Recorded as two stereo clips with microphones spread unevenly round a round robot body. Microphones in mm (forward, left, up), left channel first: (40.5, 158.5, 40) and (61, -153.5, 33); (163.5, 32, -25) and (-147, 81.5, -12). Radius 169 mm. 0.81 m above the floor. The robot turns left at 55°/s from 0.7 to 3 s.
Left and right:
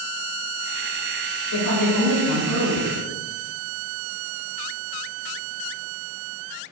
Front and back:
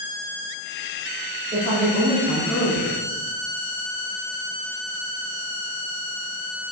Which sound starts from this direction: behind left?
A woman speaking, at 1.5 s.